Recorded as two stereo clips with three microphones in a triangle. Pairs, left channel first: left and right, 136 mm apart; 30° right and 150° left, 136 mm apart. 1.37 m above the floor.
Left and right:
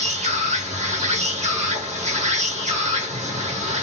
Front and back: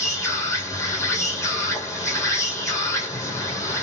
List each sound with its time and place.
0.0 s an insect: 95° right, 1.2 m